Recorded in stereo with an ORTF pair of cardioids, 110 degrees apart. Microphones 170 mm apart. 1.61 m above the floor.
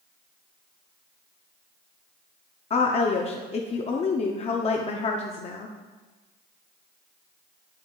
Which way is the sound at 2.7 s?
35° left.